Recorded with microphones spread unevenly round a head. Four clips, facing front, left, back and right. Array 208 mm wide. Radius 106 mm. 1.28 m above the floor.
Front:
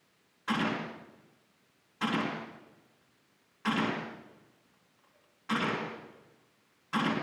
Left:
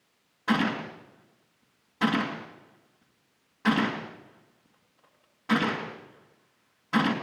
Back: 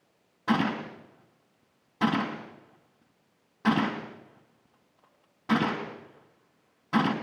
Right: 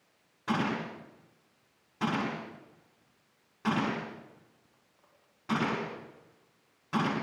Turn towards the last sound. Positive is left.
turn(degrees=180)